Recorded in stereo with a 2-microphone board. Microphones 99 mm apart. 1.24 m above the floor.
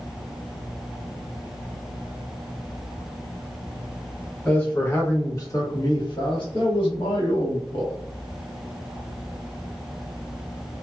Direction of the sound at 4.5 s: 10° left (ahead or behind).